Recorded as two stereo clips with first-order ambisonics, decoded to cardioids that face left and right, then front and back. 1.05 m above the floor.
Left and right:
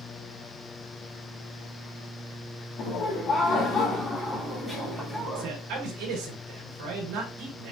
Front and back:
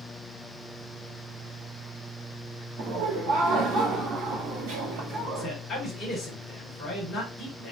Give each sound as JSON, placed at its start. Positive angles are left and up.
{"t": 2.8, "sound": "laughter", "azimuth_deg": 135, "distance_m": 1.4}
{"t": 5.3, "sound": "a man speaking", "azimuth_deg": -75, "distance_m": 3.5}